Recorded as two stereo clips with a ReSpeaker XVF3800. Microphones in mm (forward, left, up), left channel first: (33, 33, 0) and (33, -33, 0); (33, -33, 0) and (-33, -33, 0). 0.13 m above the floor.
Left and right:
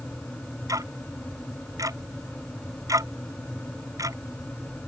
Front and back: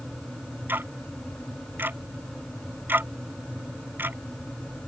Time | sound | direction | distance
0.7 | ticking | 120° right | ?